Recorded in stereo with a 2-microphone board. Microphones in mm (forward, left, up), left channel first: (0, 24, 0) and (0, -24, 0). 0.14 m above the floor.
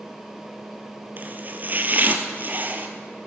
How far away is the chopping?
About 1.2 m.